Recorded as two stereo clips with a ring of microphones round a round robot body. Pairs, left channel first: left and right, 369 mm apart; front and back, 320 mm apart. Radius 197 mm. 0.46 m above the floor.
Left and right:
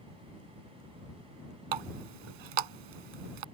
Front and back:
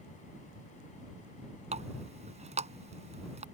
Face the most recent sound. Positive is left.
turn(degrees=-105)